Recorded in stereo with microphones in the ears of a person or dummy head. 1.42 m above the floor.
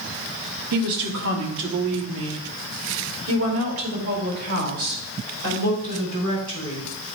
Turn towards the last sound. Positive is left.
turn(degrees=-85)